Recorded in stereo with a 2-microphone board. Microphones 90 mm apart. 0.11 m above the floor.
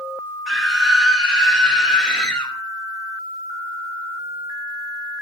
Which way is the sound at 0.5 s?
Centre (ahead or behind).